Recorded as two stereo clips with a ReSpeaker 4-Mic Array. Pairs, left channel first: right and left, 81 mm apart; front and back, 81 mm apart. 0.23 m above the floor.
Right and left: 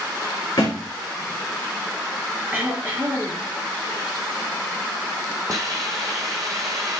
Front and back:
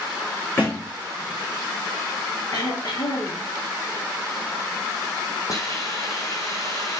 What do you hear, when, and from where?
0.6 s a thud: 60° right, 4.5 m
2.5 s throat clearing: 25° left, 2.5 m
5.5 s a hiss: 45° left, 1.8 m